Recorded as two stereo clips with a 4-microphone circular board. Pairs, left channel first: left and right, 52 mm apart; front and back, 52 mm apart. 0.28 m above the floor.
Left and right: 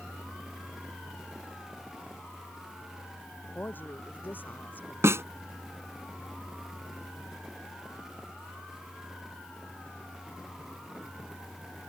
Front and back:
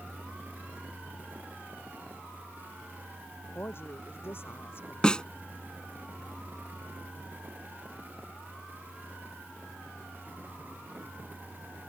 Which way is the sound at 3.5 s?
40° left.